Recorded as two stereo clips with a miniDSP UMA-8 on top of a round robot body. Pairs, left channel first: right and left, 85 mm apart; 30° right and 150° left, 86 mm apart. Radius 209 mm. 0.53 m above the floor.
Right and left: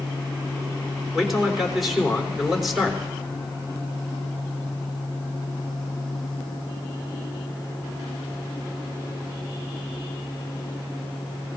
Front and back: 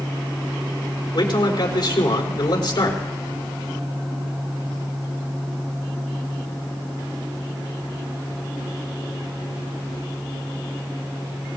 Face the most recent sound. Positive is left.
turn(degrees=5)